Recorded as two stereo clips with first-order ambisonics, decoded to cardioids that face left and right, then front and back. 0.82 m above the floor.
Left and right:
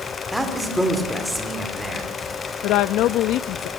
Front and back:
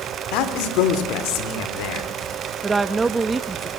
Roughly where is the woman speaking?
Left.